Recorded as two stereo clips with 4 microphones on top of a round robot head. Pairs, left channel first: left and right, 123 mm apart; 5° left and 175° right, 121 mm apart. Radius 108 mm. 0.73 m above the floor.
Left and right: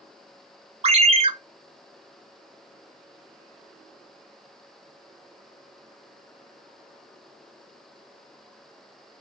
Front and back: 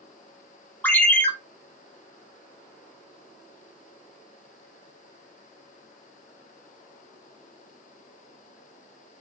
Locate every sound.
0.8 s a ringtone: 65° right, 0.7 m